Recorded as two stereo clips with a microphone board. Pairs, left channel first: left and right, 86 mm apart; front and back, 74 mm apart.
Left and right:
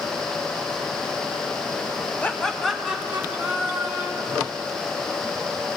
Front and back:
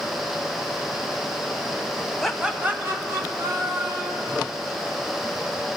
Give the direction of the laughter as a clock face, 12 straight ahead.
9 o'clock.